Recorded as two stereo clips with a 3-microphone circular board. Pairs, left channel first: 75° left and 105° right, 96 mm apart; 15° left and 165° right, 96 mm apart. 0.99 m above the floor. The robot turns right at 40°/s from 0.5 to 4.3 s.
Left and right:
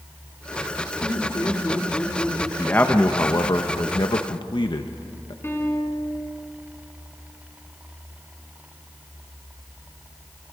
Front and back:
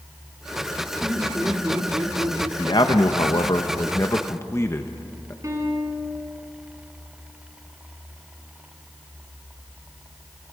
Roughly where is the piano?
Behind left.